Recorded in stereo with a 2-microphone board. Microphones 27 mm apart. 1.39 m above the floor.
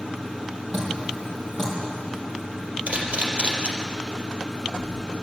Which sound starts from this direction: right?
A camera shutter, at 2.9 s.